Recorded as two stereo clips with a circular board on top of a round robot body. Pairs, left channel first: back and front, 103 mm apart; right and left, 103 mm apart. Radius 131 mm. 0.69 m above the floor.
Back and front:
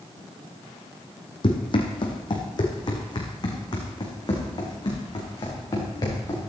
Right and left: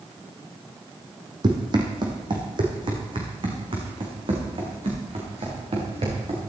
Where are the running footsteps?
140° left, 2.5 m; by 6.5 s 125° left, 6 m.